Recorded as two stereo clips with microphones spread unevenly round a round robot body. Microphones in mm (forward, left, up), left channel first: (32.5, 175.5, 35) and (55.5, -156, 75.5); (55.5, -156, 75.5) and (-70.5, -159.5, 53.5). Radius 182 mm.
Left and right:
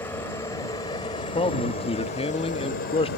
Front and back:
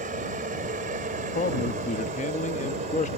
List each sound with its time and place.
0.0 s a helicopter: 175° left; by 3.2 s 150° left
1.4 s a man speaking: 25° left